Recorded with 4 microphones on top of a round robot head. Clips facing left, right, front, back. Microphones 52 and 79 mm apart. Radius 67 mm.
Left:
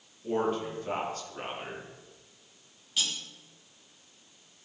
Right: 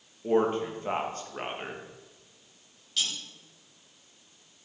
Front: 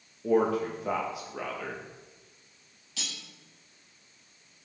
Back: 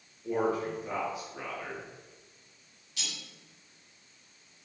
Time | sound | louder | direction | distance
0.2 | a man speaking | right 4 dB, front 4 dB | 30° right | 2 m
3.0 | cutlery clinking | even, front 1 dB | 15° left | 5 m